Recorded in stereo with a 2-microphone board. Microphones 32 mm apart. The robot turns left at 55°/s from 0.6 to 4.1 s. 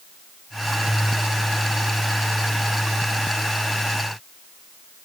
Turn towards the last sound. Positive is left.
No sound to turn to.